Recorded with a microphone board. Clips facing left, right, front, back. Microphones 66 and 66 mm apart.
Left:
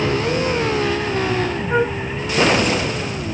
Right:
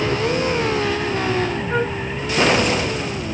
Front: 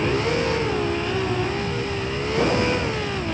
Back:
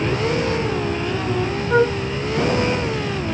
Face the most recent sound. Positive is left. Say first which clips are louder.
# left 6 dB, back 10 dB
turn(degrees=170)